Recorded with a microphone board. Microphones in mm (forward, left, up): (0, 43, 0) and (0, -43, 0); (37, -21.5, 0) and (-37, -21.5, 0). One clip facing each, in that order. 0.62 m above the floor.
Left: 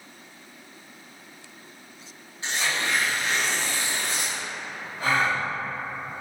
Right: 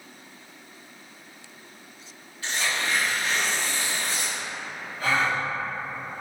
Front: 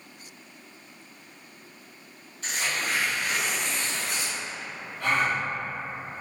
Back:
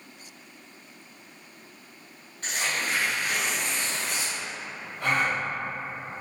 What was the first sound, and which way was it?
Tearing paper, 150° left.